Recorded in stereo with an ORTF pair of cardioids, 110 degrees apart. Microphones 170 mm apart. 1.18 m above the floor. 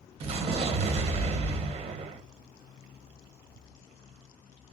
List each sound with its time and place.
0.2 s an explosion: 35° right, 0.9 m